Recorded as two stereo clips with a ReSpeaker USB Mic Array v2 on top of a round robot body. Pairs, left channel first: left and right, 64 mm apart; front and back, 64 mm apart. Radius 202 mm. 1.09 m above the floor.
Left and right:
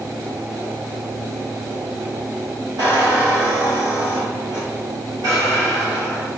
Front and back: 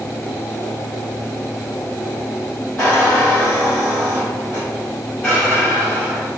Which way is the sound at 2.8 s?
65° right.